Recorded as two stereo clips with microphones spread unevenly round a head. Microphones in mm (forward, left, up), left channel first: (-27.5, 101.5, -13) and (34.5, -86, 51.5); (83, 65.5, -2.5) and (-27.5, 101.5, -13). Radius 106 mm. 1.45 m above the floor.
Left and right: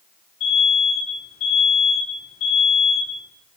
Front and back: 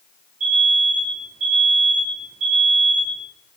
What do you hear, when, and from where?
0.4 s an alarm: 165° left, 6.5 m